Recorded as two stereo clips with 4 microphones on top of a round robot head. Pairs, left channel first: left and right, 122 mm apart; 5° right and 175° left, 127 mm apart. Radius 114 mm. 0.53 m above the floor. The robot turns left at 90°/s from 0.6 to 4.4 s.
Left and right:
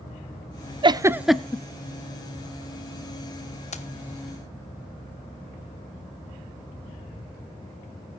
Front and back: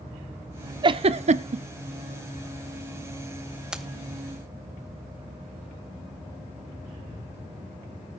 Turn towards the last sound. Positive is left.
turn(degrees=30)